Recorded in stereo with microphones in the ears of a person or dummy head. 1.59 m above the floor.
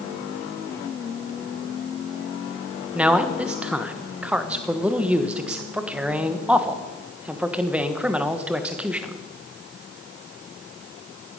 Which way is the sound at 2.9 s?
5° right (ahead or behind).